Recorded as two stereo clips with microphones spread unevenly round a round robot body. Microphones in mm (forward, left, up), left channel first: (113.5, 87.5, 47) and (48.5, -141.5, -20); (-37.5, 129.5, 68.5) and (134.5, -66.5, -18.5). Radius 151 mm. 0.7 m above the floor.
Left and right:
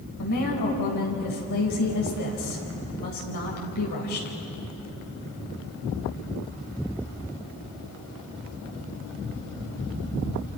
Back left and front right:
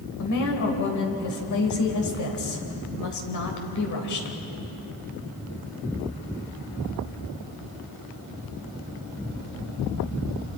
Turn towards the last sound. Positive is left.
turn(degrees=110)